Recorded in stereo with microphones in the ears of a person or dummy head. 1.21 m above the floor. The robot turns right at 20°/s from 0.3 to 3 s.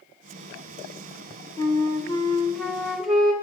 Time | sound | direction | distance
1.6 | a flute | 20° left (ahead or behind) | 1.5 m